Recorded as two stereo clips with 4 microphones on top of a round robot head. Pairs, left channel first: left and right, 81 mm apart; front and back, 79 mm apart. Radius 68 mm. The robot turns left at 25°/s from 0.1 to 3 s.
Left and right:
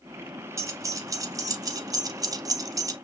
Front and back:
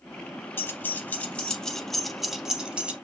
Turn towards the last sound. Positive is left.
turn(degrees=-115)